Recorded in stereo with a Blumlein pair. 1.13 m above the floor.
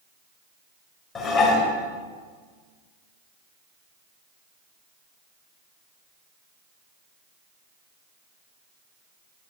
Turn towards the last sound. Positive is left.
turn(degrees=25)